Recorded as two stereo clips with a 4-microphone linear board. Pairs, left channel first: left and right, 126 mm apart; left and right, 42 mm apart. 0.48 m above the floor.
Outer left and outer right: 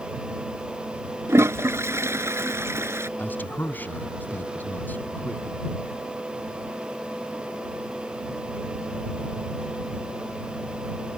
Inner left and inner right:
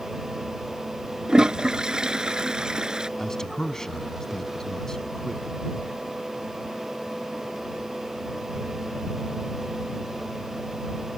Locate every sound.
1.3 s a toilet flushing: 20° right (ahead or behind)
3.2 s a man speaking: 15° left (ahead or behind)